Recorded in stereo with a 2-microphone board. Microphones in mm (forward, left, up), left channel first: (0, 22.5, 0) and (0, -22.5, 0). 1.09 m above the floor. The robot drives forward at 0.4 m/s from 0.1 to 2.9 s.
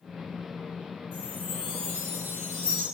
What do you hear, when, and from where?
1.1 s a chime: 35° right (ahead or behind), 1.1 m; by 2.9 s 65° right (ahead or behind), 0.7 m